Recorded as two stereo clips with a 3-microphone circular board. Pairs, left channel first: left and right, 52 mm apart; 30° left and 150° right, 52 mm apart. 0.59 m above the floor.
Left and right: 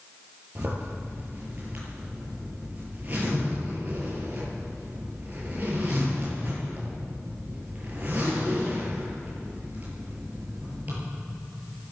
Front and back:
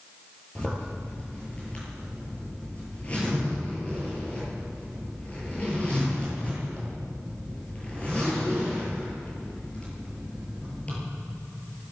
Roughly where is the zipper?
Ahead right.